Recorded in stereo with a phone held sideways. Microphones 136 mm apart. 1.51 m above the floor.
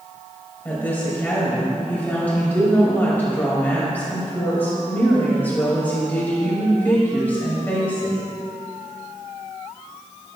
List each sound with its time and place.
0.7 s a woman speaking: 15° left (ahead or behind), 2.5 m